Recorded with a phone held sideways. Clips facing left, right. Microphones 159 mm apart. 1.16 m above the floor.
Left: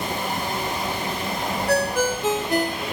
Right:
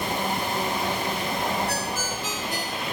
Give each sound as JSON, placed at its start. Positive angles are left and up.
{"t": 1.7, "sound": "a ringtone", "side_deg": 60}